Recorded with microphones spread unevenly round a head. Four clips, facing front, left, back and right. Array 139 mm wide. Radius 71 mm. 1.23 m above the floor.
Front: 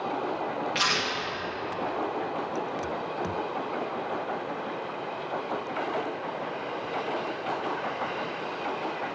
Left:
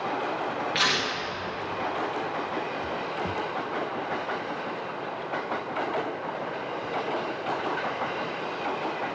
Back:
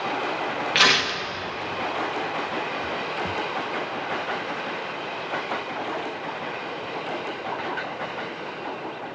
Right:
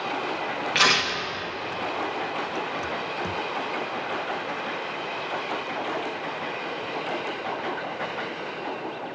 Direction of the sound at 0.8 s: 140° right.